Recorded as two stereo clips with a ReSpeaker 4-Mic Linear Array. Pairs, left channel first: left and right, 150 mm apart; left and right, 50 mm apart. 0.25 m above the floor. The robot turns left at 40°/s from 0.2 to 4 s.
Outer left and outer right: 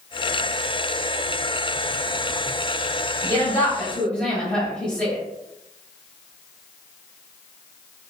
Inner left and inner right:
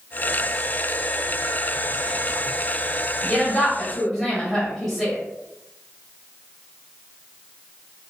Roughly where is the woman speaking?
Ahead left.